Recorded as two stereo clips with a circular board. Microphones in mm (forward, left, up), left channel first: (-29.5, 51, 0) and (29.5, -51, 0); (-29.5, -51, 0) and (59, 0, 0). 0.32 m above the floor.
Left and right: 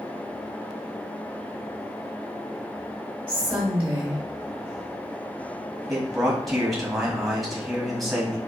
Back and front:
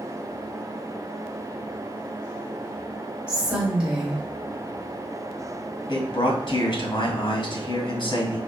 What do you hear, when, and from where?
3.3 s a woman speaking: 20° right, 1.4 m
5.9 s a man speaking: 150° right, 1.7 m